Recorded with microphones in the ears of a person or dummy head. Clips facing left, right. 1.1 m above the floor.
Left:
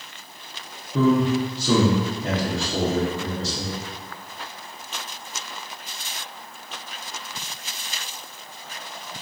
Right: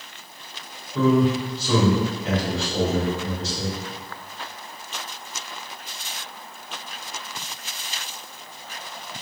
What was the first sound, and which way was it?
A man speaking, 30° left (ahead or behind).